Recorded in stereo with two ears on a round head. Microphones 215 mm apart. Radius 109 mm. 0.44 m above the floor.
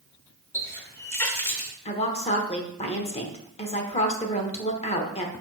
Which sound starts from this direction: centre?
A running tap, at 0.5 s.